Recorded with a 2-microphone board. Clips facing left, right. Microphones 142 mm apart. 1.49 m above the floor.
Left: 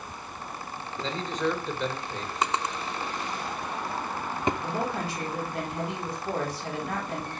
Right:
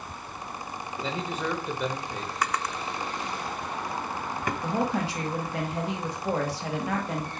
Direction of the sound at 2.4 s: 25° left (ahead or behind).